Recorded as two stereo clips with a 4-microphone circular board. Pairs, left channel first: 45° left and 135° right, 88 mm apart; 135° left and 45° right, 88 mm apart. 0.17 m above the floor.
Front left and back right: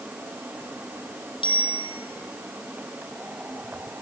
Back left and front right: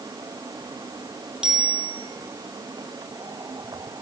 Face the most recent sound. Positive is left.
turn(degrees=35)